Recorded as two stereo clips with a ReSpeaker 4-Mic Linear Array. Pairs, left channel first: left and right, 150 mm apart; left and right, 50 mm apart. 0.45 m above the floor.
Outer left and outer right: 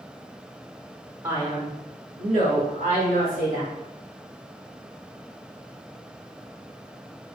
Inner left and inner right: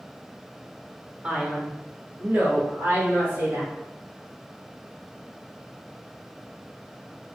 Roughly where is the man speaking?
Right.